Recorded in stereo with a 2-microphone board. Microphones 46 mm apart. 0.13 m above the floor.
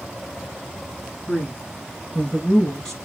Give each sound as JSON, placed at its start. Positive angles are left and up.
{"t": 1.3, "sound": "a man speaking", "side_deg": 20, "distance_m": 1.2}